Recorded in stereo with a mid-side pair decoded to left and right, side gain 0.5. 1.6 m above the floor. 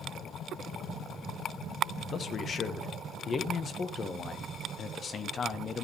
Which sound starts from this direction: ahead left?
A man speaking, at 2.0 s.